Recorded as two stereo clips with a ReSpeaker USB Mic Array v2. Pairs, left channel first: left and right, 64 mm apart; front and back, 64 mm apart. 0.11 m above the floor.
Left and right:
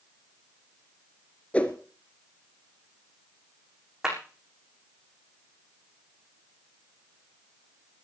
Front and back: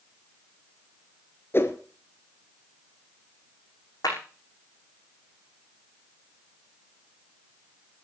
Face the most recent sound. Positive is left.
turn(degrees=-10)